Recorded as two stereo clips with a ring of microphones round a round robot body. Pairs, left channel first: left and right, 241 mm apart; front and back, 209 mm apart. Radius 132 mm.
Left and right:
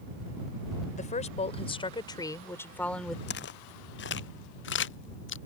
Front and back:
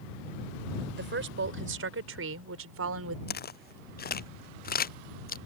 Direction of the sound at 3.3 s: 40° left.